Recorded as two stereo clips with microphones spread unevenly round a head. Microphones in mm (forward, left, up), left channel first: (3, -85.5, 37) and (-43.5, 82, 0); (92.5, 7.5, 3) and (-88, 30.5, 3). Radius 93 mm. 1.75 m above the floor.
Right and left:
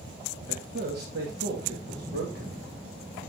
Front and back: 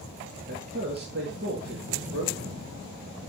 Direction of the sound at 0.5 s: 140° left.